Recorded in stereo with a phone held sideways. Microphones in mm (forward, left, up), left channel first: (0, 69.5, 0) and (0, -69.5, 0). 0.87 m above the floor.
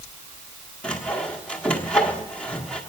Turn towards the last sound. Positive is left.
turn(degrees=10)  # may be behind; listen again after turning